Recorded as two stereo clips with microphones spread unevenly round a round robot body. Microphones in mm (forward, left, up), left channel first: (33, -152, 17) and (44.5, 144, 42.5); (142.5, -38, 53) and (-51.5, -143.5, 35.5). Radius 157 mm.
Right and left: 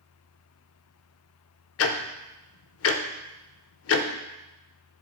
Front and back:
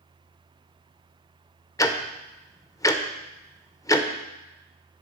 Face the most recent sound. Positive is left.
turn(degrees=-45)